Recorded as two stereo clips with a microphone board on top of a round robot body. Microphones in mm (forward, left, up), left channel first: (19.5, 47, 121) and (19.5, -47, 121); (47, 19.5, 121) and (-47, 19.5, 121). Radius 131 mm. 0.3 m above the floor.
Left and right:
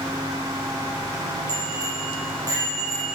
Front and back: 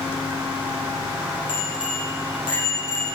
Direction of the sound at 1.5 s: 40° right.